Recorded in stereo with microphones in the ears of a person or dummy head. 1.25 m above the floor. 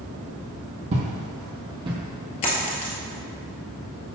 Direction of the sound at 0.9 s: 40° right (ahead or behind).